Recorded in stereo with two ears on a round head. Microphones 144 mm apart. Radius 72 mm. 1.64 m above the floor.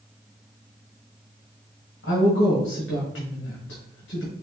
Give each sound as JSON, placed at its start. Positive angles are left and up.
{"t": 2.0, "sound": "a woman speaking", "side_deg": 80, "distance_m": 1.4}